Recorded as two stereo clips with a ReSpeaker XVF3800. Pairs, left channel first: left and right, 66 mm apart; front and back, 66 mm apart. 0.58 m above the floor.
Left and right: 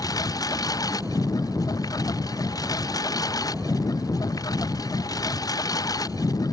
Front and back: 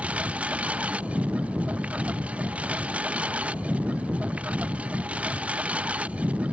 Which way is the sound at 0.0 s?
110° left.